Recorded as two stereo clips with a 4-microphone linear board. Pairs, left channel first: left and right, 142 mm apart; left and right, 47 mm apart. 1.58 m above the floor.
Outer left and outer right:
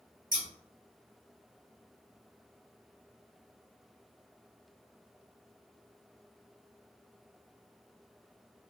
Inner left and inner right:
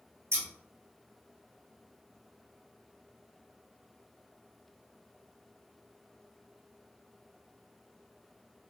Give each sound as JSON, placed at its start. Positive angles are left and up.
{"t": 0.3, "sound": "scissors", "side_deg": -75, "distance_m": 1.0}